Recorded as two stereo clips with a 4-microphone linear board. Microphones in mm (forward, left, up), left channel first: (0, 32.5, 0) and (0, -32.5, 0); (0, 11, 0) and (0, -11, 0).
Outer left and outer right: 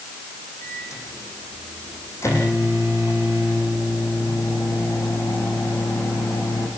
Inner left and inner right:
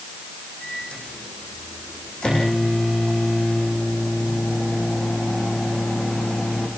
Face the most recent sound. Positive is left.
turn(degrees=50)  # may be behind; listen again after turning